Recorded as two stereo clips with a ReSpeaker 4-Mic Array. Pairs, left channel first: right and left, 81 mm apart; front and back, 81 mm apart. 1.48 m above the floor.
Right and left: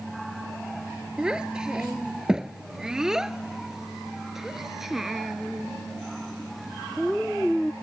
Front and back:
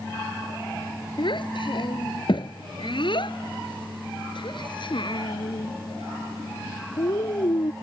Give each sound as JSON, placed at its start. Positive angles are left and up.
{"t": 1.2, "sound": "a child speaking", "azimuth_deg": 10}